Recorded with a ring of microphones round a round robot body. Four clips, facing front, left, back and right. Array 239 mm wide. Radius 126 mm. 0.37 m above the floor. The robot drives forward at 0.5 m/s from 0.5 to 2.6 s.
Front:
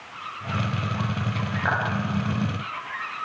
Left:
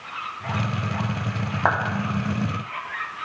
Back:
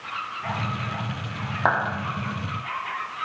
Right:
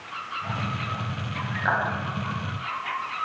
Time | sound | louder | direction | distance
1.6 | a clap | left 3 dB, back 4 dB | 130° left | 3.5 m